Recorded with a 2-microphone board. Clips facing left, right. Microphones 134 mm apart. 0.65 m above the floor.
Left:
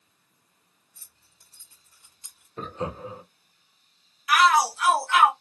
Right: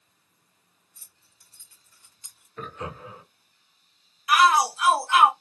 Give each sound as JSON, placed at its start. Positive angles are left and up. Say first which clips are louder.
{"t": 0.9, "sound": "keys jangling", "louder": "left 1 dB", "side_deg": 55, "distance_m": 1.9}
{"t": 2.6, "sound": "laughter", "louder": "left 4 dB", "side_deg": 30, "distance_m": 0.8}
{"t": 4.3, "sound": "a shout", "louder": "even", "side_deg": -25, "distance_m": 1.3}